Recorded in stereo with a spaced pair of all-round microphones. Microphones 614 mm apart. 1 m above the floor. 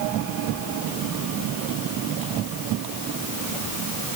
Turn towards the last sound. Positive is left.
No sound to turn to.